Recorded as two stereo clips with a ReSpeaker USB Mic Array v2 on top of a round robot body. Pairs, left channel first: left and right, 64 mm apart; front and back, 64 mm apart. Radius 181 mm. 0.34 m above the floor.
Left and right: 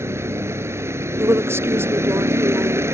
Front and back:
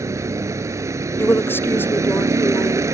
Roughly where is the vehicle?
Behind right.